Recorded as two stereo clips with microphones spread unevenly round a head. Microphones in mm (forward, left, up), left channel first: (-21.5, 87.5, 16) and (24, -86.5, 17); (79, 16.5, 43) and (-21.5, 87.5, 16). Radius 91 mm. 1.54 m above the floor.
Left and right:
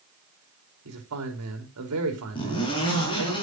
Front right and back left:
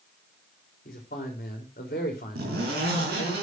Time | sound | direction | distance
0.8 | a man speaking | 80° right | 4.5 m
2.4 | a zipper | 170° left | 4.5 m